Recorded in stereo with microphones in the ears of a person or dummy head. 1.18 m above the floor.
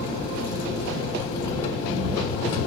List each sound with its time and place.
0.0 s an engine running: 20° left (ahead or behind), 1.0 m